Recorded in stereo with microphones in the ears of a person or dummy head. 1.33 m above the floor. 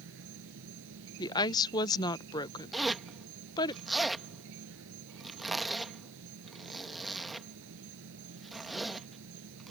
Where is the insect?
65° right (ahead or behind).